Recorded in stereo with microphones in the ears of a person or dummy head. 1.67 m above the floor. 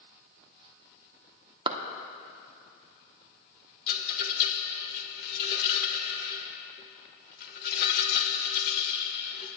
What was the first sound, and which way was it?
A clap, 25° right (ahead or behind).